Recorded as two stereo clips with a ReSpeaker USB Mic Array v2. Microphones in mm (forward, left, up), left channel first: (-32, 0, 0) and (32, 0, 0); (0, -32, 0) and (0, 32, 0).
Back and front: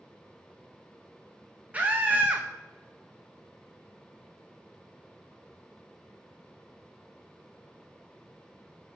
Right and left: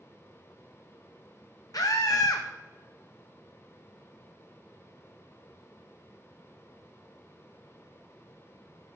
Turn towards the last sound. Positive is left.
turn(degrees=-65)